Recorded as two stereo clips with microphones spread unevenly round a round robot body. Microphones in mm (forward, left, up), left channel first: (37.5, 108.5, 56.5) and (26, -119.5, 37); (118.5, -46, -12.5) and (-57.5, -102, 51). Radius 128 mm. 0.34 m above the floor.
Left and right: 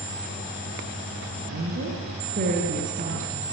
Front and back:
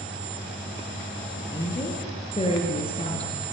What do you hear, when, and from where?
1.4 s a woman speaking: 45° right, 7 m; by 3.4 s 35° right, 6 m